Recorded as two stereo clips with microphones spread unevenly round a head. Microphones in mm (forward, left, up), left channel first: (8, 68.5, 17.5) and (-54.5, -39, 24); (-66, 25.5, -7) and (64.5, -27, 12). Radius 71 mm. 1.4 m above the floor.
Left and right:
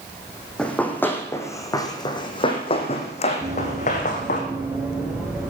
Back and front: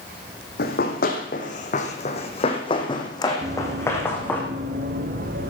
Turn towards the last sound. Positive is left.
turn(degrees=-35)